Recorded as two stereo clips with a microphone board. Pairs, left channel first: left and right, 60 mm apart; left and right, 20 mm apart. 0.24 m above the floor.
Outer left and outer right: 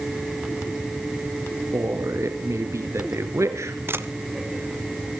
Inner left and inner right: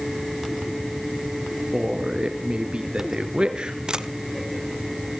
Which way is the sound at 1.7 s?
55° right (ahead or behind).